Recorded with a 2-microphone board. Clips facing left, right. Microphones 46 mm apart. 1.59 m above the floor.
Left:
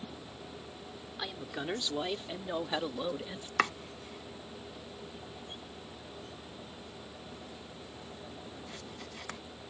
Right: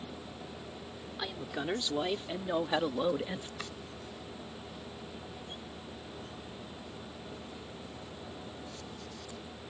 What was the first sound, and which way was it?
A woman speaking, centre (ahead or behind).